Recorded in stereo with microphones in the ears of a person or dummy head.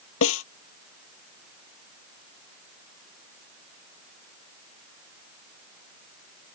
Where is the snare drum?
85° left.